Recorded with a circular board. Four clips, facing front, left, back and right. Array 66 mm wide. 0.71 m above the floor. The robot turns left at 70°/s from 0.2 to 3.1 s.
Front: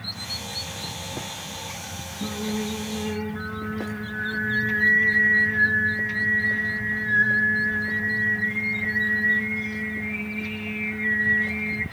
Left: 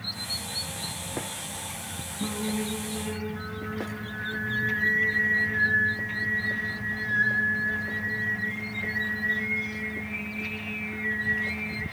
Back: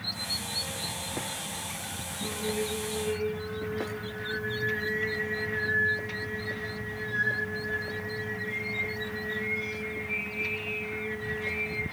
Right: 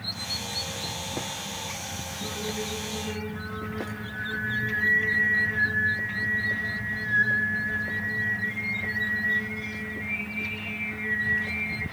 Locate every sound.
2.2 s singing: 70° left, 4 m; by 11.8 s 10° left, 4 m